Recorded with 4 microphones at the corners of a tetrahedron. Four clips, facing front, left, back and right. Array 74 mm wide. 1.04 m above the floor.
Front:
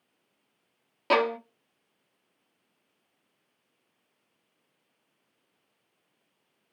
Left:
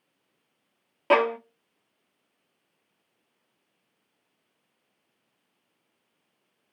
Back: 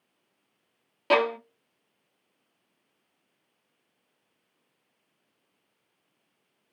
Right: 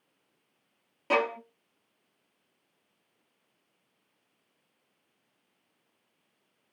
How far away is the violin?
About 0.5 m.